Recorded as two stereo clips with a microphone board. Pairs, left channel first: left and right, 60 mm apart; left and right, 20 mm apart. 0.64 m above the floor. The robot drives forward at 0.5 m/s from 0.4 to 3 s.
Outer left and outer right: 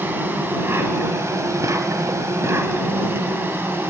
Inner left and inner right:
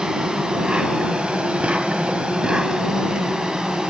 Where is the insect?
35° right (ahead or behind), 1.0 m; by 3.9 s 40° right (ahead or behind), 0.9 m.